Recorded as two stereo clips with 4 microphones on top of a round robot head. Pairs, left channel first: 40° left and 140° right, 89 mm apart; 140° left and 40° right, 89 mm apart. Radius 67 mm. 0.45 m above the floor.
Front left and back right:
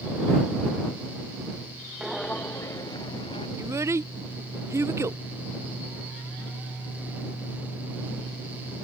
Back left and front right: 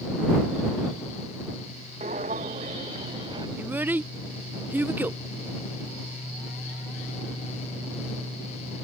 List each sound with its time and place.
2.0 s footsteps: 50° right; by 3.5 s 5° left
3.6 s a child speaking: 100° right